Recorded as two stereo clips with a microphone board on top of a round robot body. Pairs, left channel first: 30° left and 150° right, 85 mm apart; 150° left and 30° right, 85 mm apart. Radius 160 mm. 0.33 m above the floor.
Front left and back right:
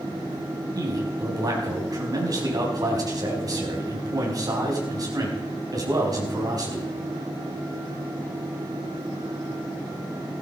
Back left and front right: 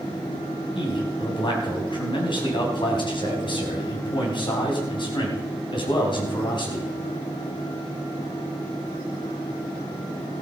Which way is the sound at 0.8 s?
170° left.